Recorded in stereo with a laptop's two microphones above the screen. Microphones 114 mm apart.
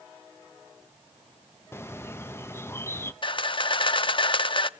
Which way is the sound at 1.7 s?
20° left (ahead or behind).